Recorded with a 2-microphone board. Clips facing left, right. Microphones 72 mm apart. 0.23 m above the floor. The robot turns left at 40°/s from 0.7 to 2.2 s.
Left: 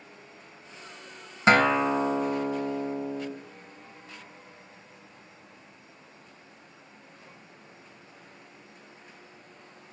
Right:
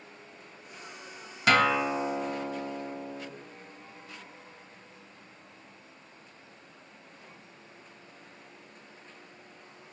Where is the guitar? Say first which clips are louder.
Left 3 dB; 30° left (ahead or behind), 0.9 m; by 3.3 s 25° left (ahead or behind), 0.9 m.